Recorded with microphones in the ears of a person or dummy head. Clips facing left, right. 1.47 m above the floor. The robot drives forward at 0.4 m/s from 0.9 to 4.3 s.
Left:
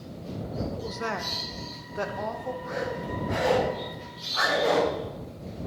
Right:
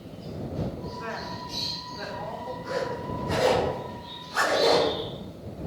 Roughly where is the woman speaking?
Left.